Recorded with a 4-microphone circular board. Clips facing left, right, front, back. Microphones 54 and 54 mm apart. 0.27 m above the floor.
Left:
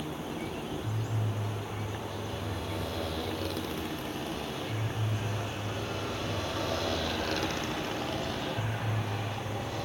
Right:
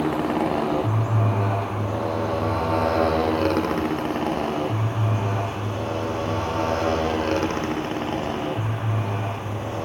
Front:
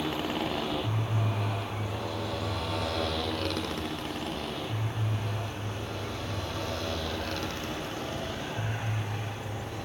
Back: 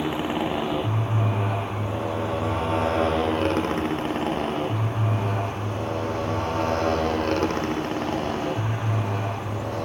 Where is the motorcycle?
105° right; by 9.8 s 140° right.